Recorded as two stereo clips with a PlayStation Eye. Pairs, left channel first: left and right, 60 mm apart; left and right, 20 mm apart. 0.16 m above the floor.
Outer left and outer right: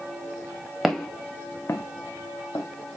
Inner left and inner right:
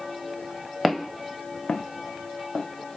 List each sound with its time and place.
0.8 s footsteps: 5° right (ahead or behind), 1.3 m; by 2.6 s 80° left, 1.6 m